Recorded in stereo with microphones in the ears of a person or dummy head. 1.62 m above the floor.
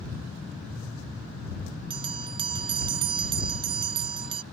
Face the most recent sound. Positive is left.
turn(degrees=-25)  # may be behind; listen again after turning